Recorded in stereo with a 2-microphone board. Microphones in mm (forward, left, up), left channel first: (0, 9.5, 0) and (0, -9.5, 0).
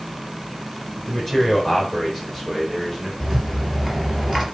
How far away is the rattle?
About 3.5 m.